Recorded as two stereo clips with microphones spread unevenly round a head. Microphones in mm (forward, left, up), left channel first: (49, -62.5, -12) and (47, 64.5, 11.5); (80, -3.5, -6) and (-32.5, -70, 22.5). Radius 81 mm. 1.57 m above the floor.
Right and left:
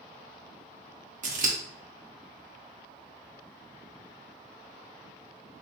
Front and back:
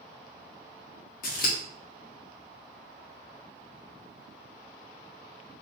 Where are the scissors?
70° left, 1.1 m.